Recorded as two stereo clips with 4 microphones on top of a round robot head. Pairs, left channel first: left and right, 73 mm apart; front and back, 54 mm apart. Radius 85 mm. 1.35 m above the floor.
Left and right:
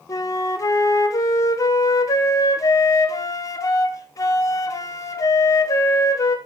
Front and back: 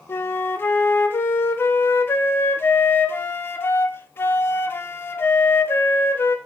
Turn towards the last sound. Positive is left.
turn(degrees=50)